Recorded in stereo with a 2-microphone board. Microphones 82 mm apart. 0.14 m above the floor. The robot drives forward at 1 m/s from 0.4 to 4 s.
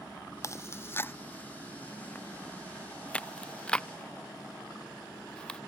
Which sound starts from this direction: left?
Chewing, at 0.4 s.